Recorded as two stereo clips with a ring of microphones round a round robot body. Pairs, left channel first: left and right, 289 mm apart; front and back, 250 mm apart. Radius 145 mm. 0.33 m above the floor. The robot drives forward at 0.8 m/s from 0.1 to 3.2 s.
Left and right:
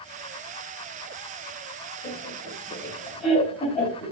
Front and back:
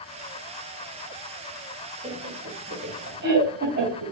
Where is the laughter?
135° left, 1.9 m; by 4.1 s 155° left, 2.5 m.